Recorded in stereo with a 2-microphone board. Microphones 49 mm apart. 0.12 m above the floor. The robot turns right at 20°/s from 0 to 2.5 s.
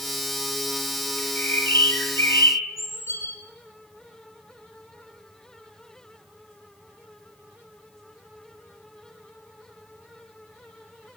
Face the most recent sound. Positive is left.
turn(degrees=65)  # may be behind; listen again after turning